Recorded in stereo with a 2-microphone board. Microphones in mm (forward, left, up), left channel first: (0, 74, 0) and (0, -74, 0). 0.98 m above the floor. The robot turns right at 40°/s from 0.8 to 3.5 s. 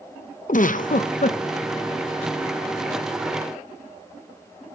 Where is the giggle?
65° left (ahead or behind), 0.5 m; by 1.4 s 60° left (ahead or behind), 0.5 m.